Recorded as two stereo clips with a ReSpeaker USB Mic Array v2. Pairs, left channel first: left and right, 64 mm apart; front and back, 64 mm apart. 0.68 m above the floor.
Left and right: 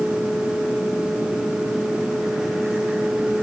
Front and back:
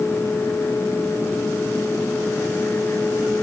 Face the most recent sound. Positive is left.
No sound to turn to.